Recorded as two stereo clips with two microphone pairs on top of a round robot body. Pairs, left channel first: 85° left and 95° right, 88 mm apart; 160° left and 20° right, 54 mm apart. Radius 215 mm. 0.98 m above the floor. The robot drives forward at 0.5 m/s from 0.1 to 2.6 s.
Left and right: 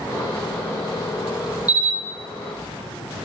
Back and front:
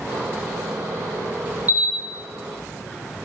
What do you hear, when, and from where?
1.7 s a camera shutter: 40° left, 2 m; by 1.9 s 45° left, 2 m